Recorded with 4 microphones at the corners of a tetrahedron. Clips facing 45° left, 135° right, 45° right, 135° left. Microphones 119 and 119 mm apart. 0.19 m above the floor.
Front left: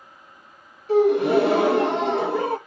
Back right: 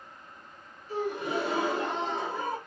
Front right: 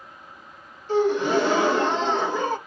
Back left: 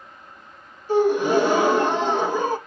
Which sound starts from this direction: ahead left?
A gasp, at 0.9 s.